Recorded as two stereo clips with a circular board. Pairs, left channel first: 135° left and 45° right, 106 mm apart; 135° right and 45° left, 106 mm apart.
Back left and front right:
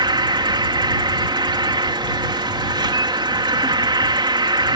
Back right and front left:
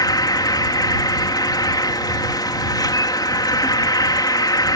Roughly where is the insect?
Right.